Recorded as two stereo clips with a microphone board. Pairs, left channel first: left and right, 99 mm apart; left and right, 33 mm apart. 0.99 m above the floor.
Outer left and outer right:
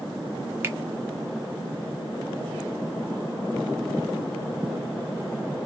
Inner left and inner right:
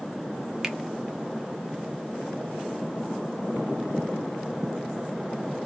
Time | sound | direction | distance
0.6 | a finger snap | 25° right (ahead or behind) | 0.7 m